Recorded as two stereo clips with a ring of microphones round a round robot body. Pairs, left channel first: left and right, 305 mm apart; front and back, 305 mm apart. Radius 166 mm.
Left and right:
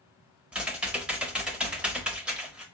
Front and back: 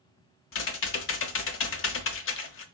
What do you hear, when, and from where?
0.5 s typing on a keyboard: 5° right, 0.5 m